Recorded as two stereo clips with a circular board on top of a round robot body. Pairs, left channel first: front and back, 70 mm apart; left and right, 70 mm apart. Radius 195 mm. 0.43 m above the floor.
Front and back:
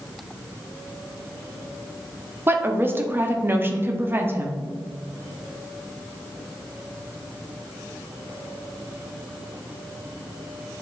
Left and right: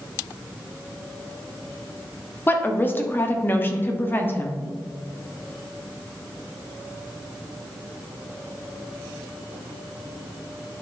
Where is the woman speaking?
135° left, 1.5 m.